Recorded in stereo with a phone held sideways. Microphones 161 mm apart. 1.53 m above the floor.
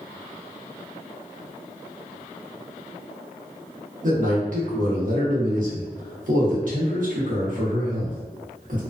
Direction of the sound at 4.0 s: 55° right (ahead or behind).